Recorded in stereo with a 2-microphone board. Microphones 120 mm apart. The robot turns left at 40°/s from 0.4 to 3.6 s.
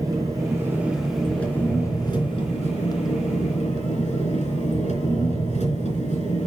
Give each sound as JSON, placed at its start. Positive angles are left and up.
{"t": 0.0, "sound": "an engine running", "azimuth_deg": -150, "distance_m": 3.5}